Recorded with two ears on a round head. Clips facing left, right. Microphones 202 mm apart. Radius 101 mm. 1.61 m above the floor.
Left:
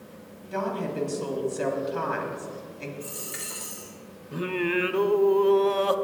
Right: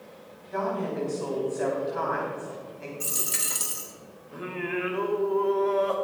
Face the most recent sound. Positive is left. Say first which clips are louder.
# left 5 dB
turn(degrees=50)  # may be behind; listen again after turning